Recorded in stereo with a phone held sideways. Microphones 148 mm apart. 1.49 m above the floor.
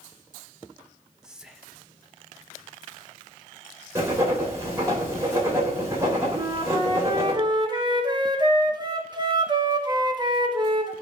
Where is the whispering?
5° right (ahead or behind), 1.3 m.